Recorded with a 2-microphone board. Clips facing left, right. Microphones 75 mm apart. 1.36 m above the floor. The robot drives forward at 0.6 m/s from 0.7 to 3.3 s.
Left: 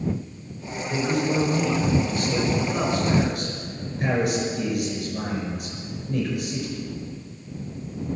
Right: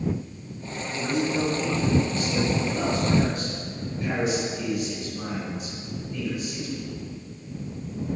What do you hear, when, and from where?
0.9 s a man speaking: 65° left (ahead or behind), 6 m; by 6.8 s 55° left (ahead or behind), 7 m